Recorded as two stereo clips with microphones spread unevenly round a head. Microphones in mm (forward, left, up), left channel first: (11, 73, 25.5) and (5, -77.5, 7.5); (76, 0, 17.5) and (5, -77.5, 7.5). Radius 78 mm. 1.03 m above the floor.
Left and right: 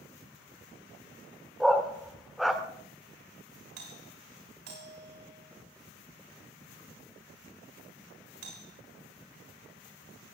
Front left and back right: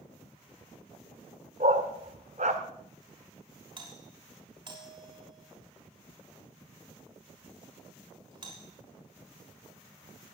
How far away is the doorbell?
About 6.5 m.